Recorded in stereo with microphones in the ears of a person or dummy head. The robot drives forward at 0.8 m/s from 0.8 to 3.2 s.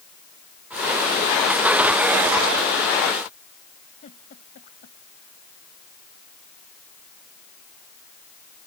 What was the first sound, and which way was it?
A giggle, 45° left (ahead or behind).